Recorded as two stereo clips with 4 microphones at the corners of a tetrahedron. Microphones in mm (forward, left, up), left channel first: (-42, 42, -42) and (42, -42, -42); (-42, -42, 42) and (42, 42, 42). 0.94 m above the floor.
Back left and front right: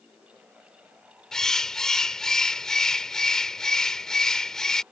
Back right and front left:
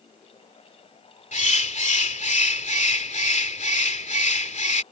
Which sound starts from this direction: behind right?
A bird, at 1.3 s.